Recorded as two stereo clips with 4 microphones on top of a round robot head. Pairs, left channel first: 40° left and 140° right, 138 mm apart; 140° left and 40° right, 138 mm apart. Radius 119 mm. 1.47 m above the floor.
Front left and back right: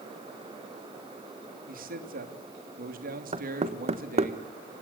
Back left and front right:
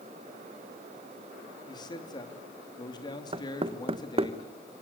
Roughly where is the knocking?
Right.